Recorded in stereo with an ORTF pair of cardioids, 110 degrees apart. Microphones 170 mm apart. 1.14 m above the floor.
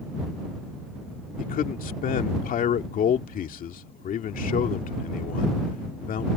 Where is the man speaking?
55° left.